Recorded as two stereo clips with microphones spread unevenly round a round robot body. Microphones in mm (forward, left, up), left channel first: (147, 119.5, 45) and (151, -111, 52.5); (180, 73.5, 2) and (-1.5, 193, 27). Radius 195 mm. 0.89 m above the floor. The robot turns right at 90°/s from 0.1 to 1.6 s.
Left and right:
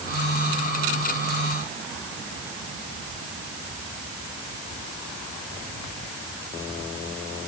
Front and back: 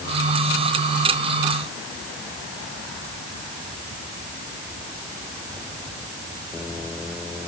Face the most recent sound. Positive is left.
No sound to turn to.